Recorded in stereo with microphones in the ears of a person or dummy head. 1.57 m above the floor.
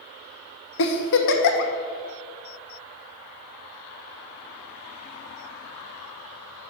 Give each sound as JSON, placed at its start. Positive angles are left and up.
{"t": 0.8, "sound": "a giggle", "side_deg": 70, "distance_m": 1.0}